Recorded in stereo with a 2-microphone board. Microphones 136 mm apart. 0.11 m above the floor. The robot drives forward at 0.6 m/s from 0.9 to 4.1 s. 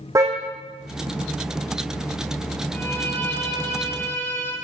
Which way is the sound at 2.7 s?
10° left (ahead or behind).